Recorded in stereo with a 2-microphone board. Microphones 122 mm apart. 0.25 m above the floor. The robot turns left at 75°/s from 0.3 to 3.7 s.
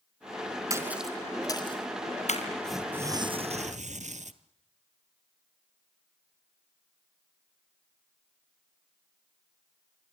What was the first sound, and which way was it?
A splash, 25° right (ahead or behind).